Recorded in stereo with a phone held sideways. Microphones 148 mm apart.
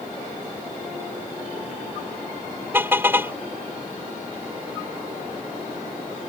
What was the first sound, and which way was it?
A car horn, 15° right (ahead or behind).